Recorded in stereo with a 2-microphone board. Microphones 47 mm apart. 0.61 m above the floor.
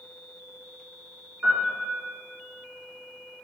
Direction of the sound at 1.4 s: 30° right (ahead or behind).